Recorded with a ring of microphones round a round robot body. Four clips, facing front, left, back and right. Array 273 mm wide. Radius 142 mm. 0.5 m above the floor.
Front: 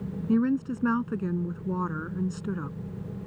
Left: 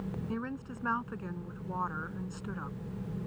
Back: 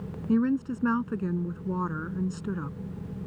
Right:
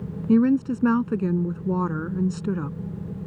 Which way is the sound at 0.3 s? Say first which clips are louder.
Right 19 dB, even; 90° right.